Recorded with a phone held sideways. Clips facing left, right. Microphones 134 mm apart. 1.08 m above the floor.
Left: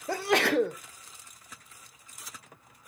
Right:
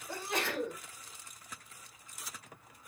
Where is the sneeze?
75° left (ahead or behind), 0.7 m.